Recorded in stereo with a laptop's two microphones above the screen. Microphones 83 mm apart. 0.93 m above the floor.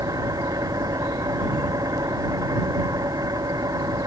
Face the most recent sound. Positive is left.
turn(degrees=-50)  # may be behind; listen again after turning